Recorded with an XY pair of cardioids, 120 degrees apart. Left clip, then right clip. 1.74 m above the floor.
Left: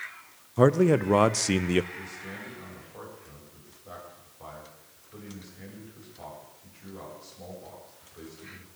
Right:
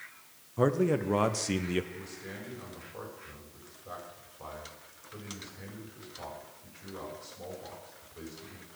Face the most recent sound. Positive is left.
turn(degrees=-10)